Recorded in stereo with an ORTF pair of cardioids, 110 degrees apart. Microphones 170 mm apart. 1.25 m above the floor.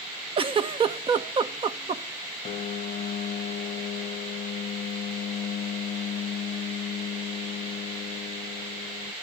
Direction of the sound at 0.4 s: 35° right.